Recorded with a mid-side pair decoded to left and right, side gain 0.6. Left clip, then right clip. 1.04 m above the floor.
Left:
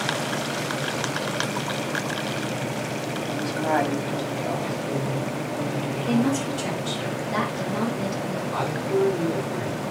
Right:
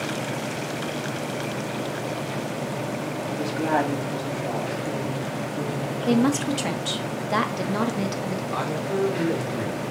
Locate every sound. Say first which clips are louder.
3.3 s a woman speaking: even; 5° right, 1.7 m; by 6.5 s 20° right, 3 m
6.1 s a woman speaking: right 3 dB; 45° right, 1.0 m
8.5 s a man speaking: left 2 dB; 25° right, 3 m